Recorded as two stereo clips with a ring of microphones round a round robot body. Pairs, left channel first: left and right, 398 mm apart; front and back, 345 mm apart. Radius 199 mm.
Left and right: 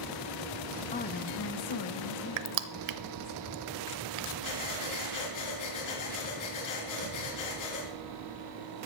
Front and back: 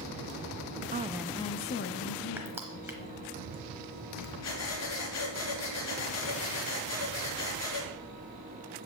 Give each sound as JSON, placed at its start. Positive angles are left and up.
{"t": 0.9, "sound": "a woman speaking", "azimuth_deg": 150, "distance_m": 0.6}
{"t": 2.4, "sound": "crushing", "azimuth_deg": -95, "distance_m": 0.8}
{"t": 4.4, "sound": "breathing", "azimuth_deg": 45, "distance_m": 3.5}